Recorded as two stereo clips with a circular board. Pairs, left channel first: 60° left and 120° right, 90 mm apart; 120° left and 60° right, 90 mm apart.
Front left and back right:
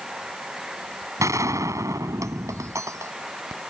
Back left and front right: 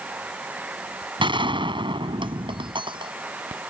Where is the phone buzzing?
No phone buzzing in this recording.